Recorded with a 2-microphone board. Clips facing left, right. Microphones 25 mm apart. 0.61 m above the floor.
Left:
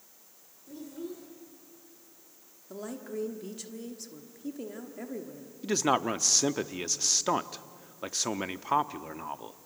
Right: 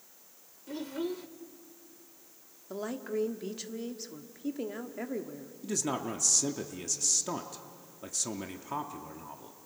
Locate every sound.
0.7 s a child speaking: 55° right (ahead or behind), 1.4 m
2.7 s a woman speaking: 20° right (ahead or behind), 1.4 m
5.6 s a man speaking: 40° left (ahead or behind), 0.8 m